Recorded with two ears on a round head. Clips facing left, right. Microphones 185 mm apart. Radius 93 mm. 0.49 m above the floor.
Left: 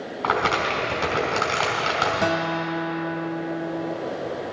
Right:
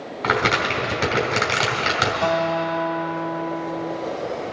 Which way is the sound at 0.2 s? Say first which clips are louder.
Right 2 dB; 20° right (ahead or behind).